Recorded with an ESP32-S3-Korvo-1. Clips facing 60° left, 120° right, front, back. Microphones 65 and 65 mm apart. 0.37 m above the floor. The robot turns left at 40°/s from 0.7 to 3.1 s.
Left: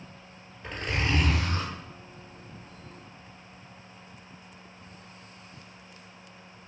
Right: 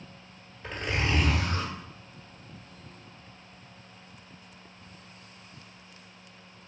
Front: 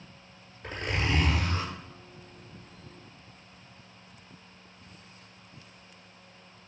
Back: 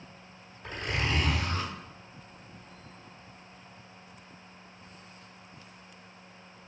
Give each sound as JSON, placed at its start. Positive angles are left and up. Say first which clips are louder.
{"t": 0.6, "sound": "a zipper", "louder": "even, front 1 dB", "azimuth_deg": -35, "distance_m": 1.3}